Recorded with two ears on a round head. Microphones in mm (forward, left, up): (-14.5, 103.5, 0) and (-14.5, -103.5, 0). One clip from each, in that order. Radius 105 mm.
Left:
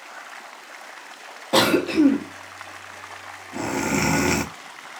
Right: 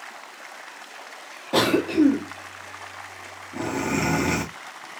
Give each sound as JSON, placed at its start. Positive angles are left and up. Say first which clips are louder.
{"t": 1.5, "sound": "a cough", "louder": "left 2 dB", "side_deg": 20, "distance_m": 0.6}